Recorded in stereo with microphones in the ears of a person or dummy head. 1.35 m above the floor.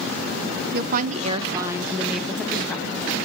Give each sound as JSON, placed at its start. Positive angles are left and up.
{"t": 0.7, "sound": "a woman speaking", "side_deg": -55, "distance_m": 0.7}